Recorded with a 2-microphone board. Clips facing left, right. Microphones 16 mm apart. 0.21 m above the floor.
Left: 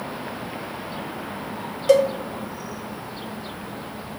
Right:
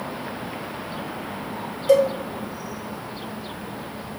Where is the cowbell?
30° left (ahead or behind), 0.5 m.